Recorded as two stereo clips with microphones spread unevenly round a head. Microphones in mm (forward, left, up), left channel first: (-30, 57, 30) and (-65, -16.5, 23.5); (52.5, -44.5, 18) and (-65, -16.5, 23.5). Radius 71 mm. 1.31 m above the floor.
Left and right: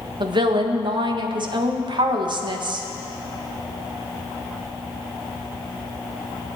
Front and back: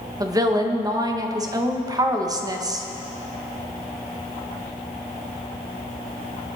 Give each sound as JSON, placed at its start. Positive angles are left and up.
{"t": 0.2, "sound": "a woman speaking", "azimuth_deg": -135, "distance_m": 1.4}